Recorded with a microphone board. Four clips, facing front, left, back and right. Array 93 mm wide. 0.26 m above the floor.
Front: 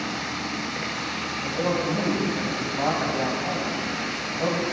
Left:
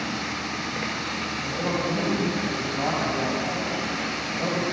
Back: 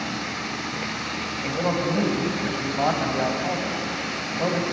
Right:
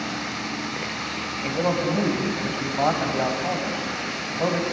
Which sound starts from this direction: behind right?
A man speaking, at 1.4 s.